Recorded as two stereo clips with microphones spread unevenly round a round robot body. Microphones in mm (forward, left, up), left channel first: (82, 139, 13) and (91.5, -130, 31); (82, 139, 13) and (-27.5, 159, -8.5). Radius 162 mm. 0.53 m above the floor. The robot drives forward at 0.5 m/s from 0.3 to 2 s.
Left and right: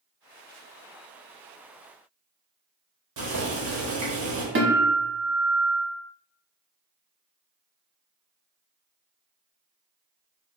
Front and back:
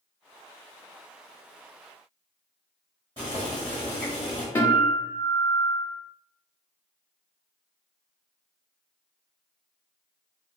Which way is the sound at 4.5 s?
90° right.